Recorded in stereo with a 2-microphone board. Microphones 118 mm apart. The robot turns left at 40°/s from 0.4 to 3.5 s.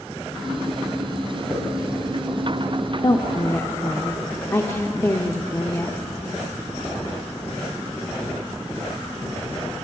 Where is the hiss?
5° right (ahead or behind), 4 m; by 1.6 s 10° right (ahead or behind), 4 m.